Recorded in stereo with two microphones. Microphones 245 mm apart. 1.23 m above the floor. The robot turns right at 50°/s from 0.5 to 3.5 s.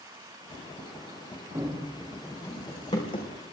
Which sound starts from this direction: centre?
Running footsteps, at 1.6 s.